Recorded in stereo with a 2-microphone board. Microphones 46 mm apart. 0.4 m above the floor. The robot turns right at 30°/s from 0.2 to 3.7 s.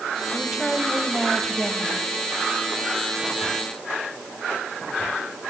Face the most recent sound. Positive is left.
turn(degrees=80)